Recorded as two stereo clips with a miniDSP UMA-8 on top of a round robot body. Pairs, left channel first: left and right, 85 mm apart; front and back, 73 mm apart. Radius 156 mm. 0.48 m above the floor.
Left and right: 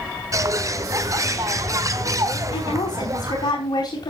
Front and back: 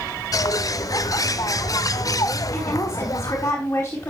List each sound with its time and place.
0.3 s a bird: 40° right, 1.0 m
2.5 s a woman speaking: 65° left, 4 m